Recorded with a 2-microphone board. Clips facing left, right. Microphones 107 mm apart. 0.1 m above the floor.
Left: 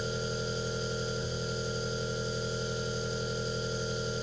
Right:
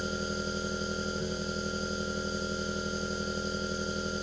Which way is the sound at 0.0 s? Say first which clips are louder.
Even; 45° right (ahead or behind).